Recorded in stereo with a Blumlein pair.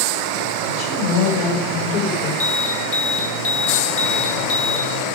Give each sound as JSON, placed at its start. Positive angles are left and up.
{"t": 0.7, "sound": "a woman speaking", "azimuth_deg": 60, "distance_m": 7.0}
{"t": 2.4, "sound": "an alarm", "azimuth_deg": 45, "distance_m": 3.5}